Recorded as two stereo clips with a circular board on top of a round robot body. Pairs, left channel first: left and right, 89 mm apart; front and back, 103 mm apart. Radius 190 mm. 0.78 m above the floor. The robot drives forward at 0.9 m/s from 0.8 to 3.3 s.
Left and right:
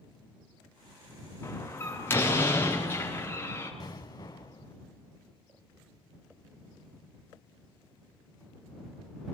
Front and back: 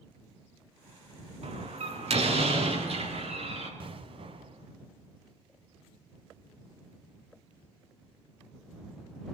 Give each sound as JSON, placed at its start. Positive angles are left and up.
{"t": 1.4, "sound": "a door slam", "azimuth_deg": 155, "distance_m": 6.5}
{"t": 3.8, "sound": "an explosion", "azimuth_deg": 140, "distance_m": 1.7}